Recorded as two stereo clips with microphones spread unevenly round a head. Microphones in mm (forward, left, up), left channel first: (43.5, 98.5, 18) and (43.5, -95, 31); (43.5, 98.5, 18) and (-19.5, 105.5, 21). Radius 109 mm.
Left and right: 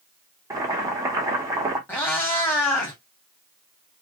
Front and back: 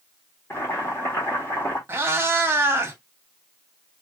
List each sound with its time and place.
0.5 s boiling: 40° right, 1.2 m
1.9 s a cat meowing: 170° left, 1.2 m